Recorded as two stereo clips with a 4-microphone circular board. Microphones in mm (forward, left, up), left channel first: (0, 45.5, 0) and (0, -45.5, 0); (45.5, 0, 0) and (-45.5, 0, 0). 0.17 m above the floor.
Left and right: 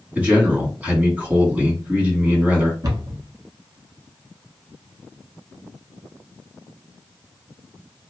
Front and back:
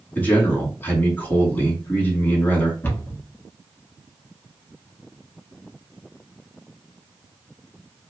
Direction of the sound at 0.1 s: 40° right.